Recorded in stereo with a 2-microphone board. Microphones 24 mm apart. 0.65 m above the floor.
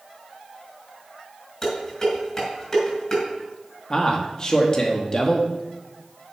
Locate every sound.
1.6 s dishes clattering: 20° left (ahead or behind), 5 m
3.9 s a man speaking: 25° left (ahead or behind), 1.3 m